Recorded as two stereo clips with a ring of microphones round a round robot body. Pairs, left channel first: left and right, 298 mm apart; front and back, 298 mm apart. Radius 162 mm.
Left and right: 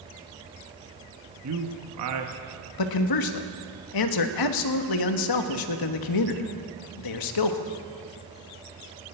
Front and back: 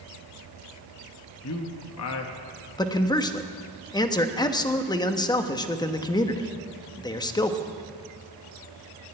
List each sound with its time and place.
1.4 s a man speaking: 45° right, 1.0 m
2.8 s a man speaking: 75° left, 1.2 m